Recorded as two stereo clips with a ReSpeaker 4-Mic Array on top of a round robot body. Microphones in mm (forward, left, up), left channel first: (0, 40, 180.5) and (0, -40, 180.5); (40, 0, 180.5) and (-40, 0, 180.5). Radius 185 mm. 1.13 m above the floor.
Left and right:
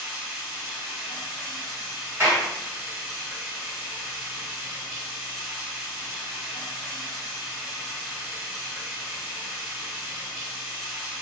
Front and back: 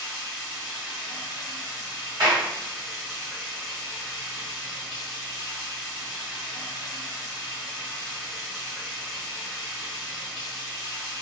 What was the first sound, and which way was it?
Running water, 145° right.